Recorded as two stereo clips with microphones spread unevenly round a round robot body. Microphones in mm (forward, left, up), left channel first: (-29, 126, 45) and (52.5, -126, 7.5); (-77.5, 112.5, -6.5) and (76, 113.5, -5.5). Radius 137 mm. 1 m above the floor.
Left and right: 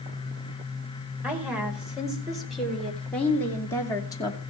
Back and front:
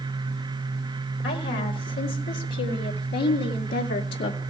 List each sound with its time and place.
1.2 s a woman speaking: 155° right, 4.5 m; by 4.4 s 175° right, 2.5 m